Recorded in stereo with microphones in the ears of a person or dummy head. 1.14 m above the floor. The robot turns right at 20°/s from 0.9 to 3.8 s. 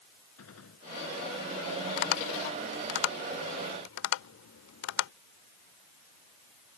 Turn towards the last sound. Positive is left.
turn(degrees=70)  # may be behind; listen again after turning